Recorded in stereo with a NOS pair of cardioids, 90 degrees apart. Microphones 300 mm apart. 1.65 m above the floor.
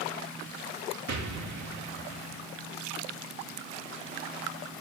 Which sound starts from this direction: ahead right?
An explosion, at 1.1 s.